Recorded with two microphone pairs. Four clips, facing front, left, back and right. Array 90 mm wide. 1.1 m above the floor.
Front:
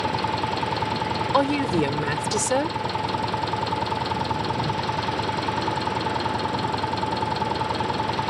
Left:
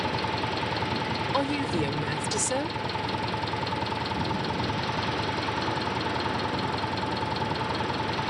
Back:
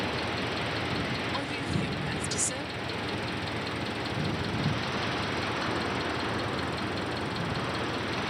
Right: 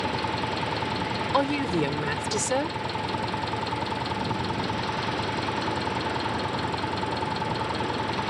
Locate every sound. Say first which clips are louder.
0.0 s an engine running: right 1 dB, front 7 dB; 5° right
1.3 s a woman speaking: right 4 dB, front 12 dB; 20° right